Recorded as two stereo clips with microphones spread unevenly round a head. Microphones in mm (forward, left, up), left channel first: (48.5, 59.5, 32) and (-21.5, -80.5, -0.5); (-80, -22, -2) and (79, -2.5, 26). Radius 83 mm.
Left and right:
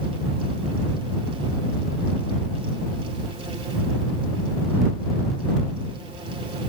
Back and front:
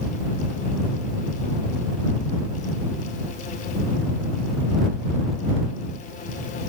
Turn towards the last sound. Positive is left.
No sound to turn to.